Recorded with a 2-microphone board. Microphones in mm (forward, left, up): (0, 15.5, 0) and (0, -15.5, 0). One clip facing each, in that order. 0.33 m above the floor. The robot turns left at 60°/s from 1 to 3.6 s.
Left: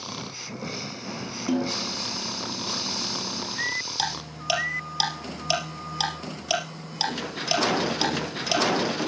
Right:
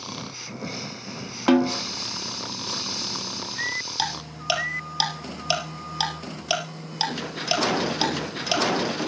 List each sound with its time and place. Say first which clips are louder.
1.5 s a snare drum: right 7 dB; 80° right, 0.8 m
4.0 s ticking: right 1 dB; 10° right (ahead or behind), 4 m